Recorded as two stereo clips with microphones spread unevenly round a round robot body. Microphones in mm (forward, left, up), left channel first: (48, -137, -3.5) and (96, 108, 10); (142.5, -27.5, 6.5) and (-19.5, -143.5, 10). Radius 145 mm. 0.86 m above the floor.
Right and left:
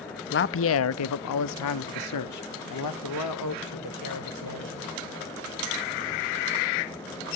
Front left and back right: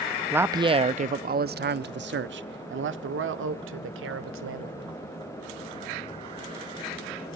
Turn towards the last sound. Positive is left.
turn(degrees=-135)